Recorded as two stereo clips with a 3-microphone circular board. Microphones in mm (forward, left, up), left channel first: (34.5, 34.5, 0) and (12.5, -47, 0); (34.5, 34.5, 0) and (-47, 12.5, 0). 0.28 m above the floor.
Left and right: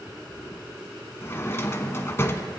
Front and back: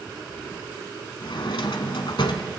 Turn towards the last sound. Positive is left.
turn(degrees=15)